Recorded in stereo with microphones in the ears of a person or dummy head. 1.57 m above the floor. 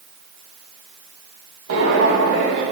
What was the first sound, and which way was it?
Footsteps, 65° right (ahead or behind).